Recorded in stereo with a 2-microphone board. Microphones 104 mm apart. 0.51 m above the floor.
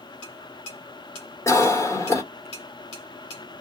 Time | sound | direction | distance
1.5 | a cough | 25° left (ahead or behind) | 1.4 m